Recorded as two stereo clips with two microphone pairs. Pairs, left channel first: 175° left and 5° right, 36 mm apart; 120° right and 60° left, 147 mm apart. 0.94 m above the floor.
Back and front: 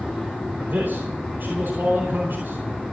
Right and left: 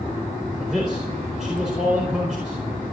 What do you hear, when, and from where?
0.6 s a man speaking: 25° right, 4.5 m